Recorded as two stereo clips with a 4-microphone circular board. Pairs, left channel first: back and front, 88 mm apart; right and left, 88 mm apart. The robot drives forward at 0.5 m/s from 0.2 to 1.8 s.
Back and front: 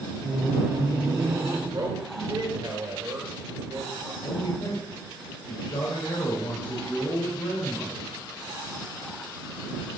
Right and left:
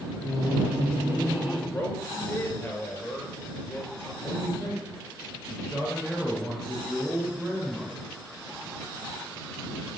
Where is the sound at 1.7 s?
15° right, 3 m.